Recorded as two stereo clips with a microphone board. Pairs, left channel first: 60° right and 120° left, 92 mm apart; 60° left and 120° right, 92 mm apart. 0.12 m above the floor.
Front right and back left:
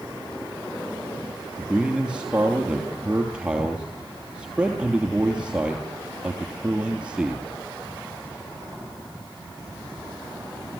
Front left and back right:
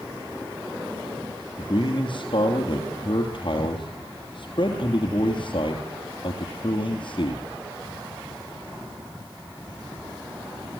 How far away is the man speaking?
About 3 m.